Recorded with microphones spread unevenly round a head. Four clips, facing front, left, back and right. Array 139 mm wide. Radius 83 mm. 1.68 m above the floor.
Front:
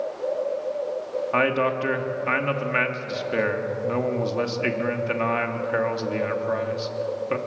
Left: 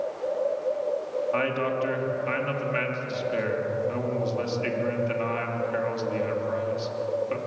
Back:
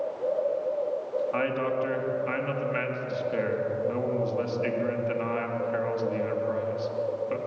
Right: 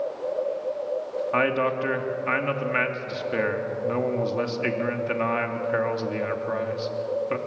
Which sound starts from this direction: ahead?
A man speaking, at 1.3 s.